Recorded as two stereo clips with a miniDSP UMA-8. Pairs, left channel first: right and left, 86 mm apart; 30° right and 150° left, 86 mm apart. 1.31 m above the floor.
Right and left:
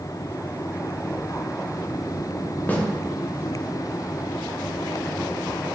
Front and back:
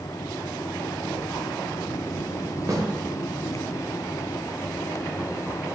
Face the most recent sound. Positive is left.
turn(degrees=-160)